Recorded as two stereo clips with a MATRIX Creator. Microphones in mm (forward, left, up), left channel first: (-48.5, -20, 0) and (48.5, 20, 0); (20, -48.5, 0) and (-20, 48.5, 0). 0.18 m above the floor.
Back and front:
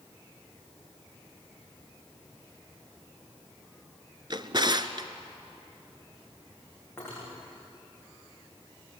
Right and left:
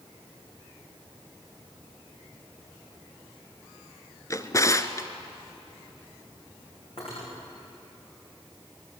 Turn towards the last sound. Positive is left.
turn(degrees=-90)